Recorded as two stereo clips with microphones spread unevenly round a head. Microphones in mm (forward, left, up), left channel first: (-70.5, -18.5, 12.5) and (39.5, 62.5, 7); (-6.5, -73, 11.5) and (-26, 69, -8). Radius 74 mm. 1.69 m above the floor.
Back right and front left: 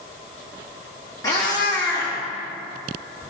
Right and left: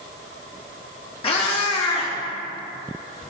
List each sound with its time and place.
1.2 s a cat meowing: 90° right, 1.4 m